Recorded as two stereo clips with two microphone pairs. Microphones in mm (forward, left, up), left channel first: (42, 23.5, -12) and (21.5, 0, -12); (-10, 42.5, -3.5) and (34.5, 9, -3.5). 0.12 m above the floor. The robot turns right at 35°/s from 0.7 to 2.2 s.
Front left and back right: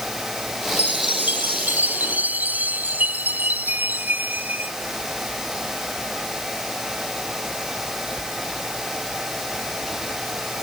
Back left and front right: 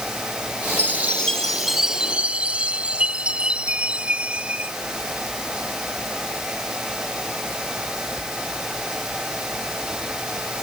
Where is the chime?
155° right; by 4.7 s 105° right.